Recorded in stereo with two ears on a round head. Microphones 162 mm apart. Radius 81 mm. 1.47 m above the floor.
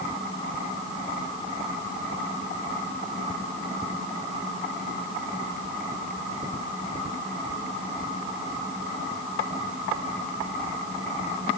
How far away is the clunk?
I don't hear a clunk.